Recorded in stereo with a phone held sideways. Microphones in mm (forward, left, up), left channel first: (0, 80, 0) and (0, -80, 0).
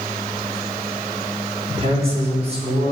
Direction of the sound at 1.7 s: 40° right (ahead or behind).